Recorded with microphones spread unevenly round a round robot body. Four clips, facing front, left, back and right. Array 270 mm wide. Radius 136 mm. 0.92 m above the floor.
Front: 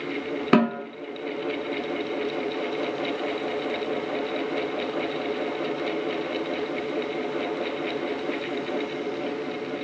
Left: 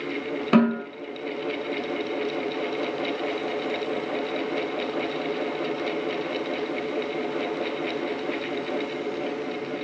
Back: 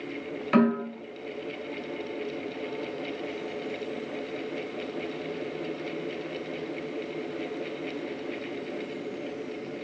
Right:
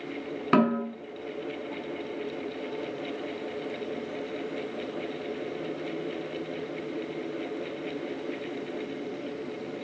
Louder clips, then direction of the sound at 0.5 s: Left 3 dB, front 2 dB; 5° left.